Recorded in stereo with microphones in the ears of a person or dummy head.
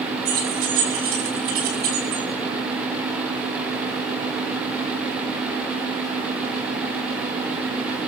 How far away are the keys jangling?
About 7 m.